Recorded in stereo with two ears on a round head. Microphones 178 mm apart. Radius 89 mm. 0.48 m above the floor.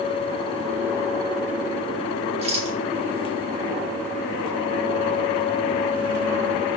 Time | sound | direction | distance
2.4 | a rattle | 30° right (ahead or behind) | 1.0 m